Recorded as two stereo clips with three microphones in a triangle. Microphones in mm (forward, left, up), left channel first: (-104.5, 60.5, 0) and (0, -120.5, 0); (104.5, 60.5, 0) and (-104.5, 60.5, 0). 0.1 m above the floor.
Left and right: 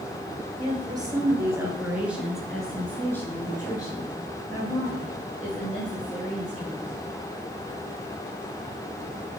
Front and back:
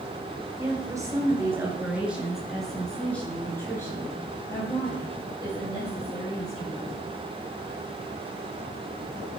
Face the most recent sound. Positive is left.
turn(degrees=65)